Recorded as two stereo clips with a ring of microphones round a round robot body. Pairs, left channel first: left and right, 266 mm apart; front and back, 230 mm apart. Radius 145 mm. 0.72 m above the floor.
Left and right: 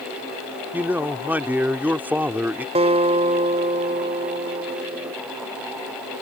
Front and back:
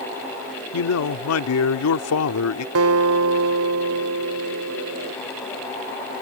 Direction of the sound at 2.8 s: 160° right.